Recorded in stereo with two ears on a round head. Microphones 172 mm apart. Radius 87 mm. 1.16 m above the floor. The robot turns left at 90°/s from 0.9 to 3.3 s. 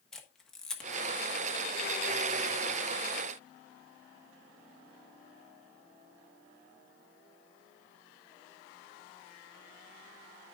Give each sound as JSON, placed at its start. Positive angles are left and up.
{"t": 0.1, "sound": "a camera shutter", "side_deg": 5, "distance_m": 1.3}